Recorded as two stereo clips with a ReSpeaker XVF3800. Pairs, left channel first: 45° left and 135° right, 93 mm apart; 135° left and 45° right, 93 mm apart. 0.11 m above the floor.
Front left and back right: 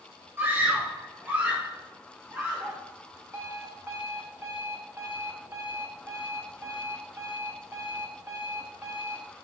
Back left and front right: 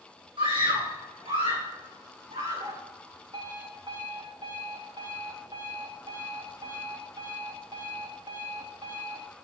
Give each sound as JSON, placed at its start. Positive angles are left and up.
{"t": 0.4, "sound": "a scream", "azimuth_deg": -70, "distance_m": 6.0}
{"t": 3.3, "sound": "an alarm clock", "azimuth_deg": -70, "distance_m": 4.0}